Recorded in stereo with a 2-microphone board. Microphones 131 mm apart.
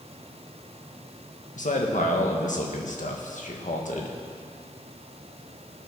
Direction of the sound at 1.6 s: 70° left (ahead or behind).